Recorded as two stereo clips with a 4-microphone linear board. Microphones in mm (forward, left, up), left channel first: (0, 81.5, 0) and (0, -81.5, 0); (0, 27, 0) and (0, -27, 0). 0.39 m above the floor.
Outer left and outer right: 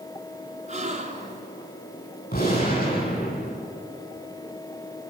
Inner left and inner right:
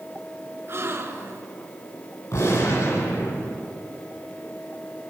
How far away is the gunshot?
About 10 m.